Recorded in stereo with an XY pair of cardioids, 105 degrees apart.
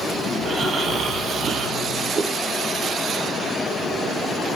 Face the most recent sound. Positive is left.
turn(degrees=-40)